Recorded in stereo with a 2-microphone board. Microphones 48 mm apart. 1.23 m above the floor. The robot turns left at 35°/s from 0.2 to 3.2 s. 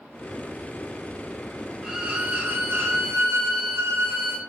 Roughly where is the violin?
Ahead.